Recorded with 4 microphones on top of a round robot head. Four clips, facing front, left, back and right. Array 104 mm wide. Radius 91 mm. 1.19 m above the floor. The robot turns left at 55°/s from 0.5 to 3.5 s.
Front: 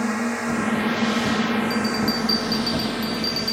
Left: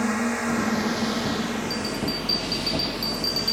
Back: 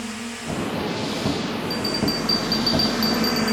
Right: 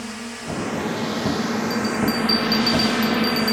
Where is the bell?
45° right; by 3.5 s 145° right.